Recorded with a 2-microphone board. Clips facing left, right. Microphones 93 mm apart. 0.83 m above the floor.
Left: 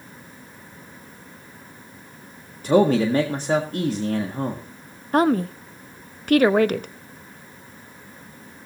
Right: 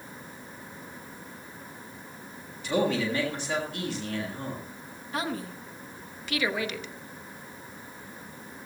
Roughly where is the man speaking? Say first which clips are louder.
Left 9 dB; left.